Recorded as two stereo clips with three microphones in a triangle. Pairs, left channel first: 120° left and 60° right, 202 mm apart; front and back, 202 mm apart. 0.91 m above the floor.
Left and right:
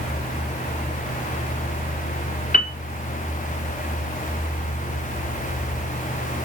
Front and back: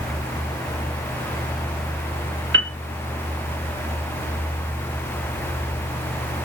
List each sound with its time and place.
2.5 s a piano: 170° left, 0.5 m